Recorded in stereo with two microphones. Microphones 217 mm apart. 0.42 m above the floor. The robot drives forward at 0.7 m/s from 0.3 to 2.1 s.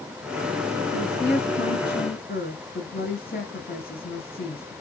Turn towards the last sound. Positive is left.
turn(degrees=45)  # may be behind; listen again after turning